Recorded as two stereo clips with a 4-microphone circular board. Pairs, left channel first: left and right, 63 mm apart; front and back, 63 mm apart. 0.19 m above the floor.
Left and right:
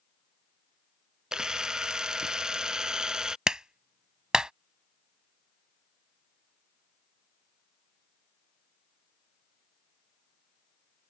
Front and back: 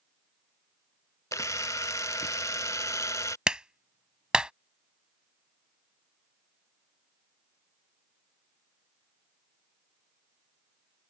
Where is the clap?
140° right.